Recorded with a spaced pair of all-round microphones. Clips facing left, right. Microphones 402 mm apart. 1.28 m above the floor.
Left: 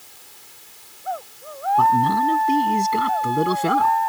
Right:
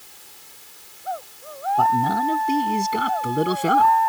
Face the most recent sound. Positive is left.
turn(degrees=0)  # may be behind; listen again after turning